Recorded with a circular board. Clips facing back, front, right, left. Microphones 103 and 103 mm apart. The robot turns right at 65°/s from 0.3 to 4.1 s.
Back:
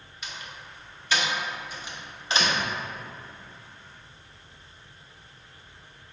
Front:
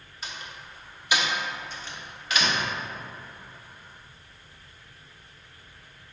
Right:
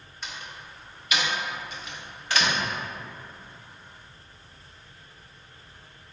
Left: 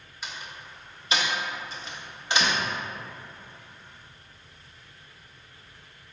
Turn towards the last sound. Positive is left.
turn(degrees=-100)